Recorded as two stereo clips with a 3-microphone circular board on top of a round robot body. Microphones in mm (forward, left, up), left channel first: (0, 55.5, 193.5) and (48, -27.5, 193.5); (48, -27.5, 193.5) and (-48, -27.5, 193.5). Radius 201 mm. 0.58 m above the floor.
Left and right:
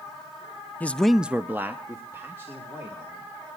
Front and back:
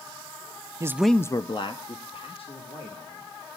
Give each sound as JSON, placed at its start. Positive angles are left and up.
{"t": 0.8, "sound": "a man speaking", "azimuth_deg": 180, "distance_m": 0.6}